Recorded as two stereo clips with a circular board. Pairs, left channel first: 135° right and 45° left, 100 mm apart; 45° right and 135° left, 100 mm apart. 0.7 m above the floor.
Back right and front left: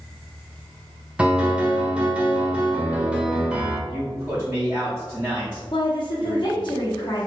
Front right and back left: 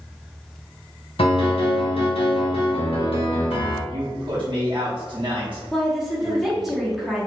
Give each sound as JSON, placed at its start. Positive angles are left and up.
{"t": 1.2, "sound": "a piano", "azimuth_deg": -35, "distance_m": 0.8}
{"t": 3.9, "sound": "a man speaking", "azimuth_deg": 110, "distance_m": 1.0}
{"t": 5.7, "sound": "a woman speaking", "azimuth_deg": -140, "distance_m": 1.4}